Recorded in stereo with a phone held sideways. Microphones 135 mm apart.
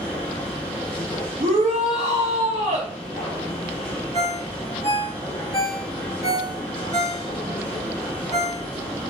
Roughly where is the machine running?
Centre.